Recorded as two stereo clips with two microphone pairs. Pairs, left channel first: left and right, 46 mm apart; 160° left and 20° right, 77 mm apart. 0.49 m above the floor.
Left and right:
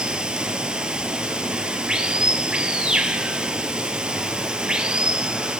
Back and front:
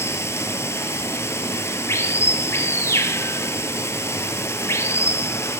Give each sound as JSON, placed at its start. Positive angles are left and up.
{"t": 0.0, "sound": "running water", "azimuth_deg": -160, "distance_m": 0.9}